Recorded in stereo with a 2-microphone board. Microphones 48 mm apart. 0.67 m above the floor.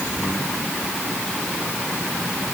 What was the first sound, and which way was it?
Only background noise.